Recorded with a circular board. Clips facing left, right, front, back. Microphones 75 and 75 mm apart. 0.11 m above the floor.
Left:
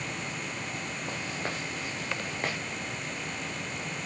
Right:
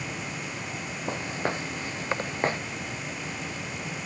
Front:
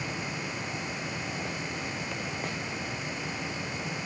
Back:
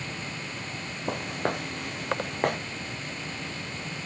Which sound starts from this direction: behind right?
Footsteps, at 1.1 s.